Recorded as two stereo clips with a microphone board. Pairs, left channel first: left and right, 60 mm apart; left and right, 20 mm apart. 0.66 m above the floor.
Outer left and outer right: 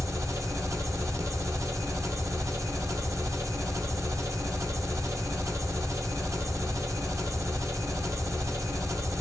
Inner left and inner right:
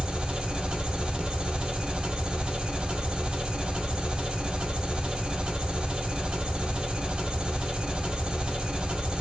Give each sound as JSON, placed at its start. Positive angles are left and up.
{"t": 0.0, "sound": "an engine running", "side_deg": -55, "distance_m": 0.8}